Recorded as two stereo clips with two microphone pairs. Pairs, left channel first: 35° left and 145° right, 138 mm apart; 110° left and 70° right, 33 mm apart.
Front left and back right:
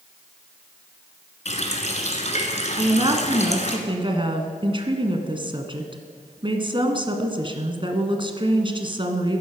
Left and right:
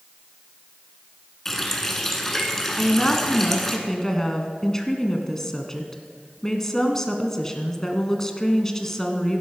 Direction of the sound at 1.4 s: 35° left.